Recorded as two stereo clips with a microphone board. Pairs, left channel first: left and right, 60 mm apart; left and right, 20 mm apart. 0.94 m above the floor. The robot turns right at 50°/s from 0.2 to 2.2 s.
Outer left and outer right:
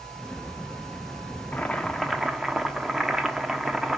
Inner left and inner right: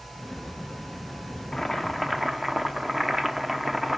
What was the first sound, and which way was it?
Boiling, 155° left.